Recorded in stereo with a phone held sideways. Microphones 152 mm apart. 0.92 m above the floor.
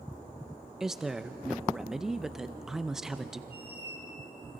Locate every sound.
0.8 s a woman speaking: 5° right (ahead or behind), 0.6 m
3.5 s a squeak: 35° left (ahead or behind), 5 m